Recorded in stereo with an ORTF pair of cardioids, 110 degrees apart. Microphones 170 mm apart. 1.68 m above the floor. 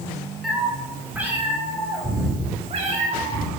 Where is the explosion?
No explosion in this recording.